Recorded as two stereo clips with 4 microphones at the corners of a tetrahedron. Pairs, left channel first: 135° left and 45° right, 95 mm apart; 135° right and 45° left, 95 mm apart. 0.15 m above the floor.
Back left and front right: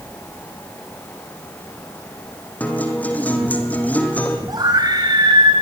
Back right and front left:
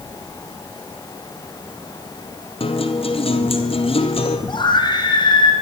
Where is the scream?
95° right, 7.5 m.